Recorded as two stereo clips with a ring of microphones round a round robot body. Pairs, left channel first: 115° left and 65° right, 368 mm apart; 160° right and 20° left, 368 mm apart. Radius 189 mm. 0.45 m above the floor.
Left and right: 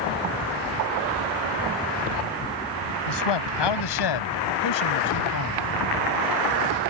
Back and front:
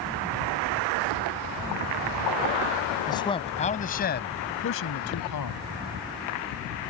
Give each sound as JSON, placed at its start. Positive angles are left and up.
{"t": 3.1, "sound": "a man speaking", "azimuth_deg": 120}